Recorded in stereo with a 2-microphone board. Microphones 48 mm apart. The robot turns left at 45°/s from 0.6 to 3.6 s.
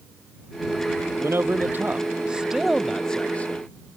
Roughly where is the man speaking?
Right.